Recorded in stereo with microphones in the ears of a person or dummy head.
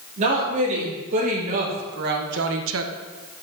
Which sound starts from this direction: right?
A woman speaking, at 0.2 s.